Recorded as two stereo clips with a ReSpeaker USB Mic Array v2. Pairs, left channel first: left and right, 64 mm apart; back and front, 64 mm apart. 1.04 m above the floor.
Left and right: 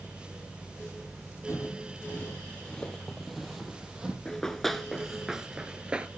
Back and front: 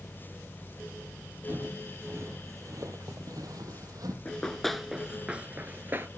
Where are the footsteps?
55° left, 2 m; by 4.2 s 10° right, 2.5 m.